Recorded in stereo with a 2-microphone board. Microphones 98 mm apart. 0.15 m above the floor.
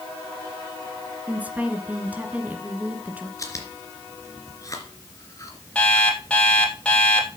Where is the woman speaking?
15° right (ahead or behind), 2.0 m.